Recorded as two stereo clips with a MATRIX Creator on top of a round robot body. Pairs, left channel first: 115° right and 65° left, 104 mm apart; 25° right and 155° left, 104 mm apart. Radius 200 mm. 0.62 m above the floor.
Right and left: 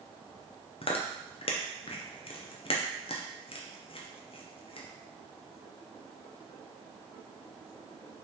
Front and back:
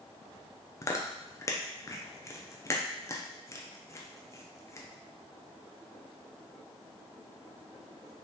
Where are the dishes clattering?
No dishes clattering in this recording.